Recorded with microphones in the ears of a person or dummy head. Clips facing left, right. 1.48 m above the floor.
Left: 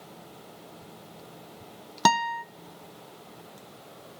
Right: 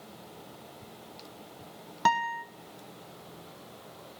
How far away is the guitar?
About 0.6 m.